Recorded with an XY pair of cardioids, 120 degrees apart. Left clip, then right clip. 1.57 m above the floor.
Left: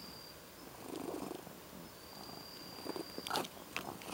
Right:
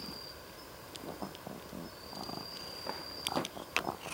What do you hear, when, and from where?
0.0 s an insect: 40° right